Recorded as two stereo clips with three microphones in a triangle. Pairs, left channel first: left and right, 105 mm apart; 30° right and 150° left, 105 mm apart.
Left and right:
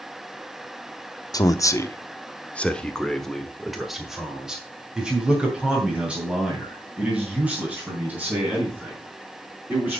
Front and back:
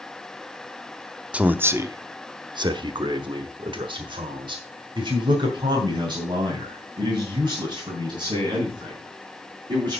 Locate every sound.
1.3 s a man speaking: 80° left, 0.8 m; by 10.0 s 165° right, 5 m